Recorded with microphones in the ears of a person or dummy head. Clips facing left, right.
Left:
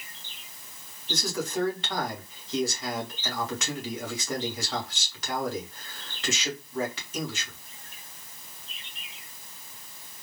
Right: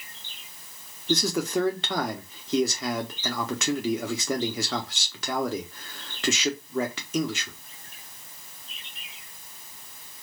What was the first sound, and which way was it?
A man speaking, 50° right (ahead or behind).